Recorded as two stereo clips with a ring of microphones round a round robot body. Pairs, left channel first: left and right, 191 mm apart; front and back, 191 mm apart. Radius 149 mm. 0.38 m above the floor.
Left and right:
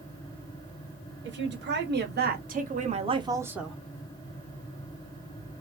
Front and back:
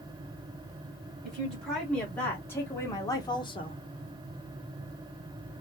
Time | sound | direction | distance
1.2 | a woman speaking | 90° right | 1.6 m